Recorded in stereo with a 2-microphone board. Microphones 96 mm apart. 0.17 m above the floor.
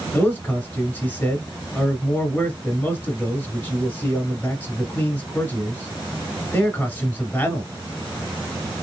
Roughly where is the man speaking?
Centre.